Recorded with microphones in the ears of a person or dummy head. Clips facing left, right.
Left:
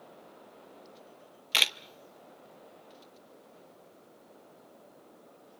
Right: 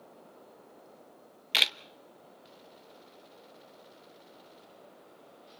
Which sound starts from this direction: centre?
A camera shutter, at 1.5 s.